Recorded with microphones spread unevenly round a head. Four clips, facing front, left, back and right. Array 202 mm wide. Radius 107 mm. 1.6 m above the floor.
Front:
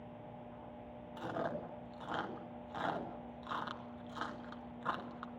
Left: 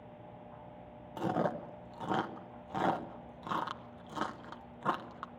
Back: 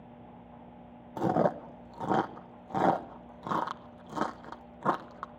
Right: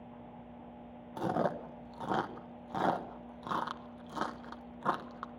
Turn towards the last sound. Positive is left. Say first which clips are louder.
# right 1 dB, back 13 dB
turn(degrees=-175)